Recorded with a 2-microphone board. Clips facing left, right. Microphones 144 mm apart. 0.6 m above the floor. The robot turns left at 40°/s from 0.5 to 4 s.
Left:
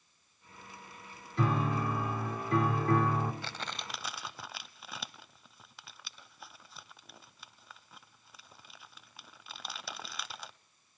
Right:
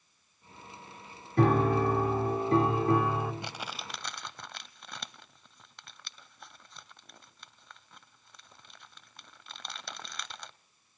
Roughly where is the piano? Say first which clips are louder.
Right 7 dB; right.